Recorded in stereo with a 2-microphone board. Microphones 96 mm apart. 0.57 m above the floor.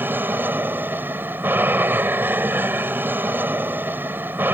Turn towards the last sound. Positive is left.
turn(degrees=-20)  # may be behind; listen again after turning